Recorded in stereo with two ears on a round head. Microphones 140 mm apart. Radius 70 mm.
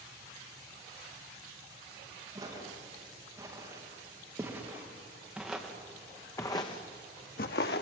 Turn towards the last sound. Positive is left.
turn(degrees=70)  # may be behind; listen again after turning